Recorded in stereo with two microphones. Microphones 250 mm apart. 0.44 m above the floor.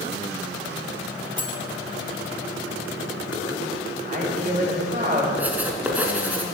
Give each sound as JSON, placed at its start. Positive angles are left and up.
{"t": 1.4, "sound": "cutlery clinking", "side_deg": 35, "distance_m": 0.9}
{"t": 4.0, "sound": "a man speaking", "side_deg": -35, "distance_m": 2.5}
{"t": 5.4, "sound": "writing", "side_deg": -5, "distance_m": 1.1}